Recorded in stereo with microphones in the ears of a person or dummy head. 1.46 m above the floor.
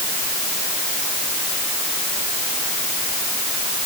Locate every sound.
Only background noise.